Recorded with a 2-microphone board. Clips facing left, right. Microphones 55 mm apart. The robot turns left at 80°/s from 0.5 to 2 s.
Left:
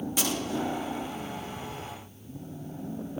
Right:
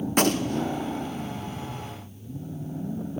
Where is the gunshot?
50° right (ahead or behind), 0.7 m; by 0.7 s 65° right (ahead or behind), 0.7 m.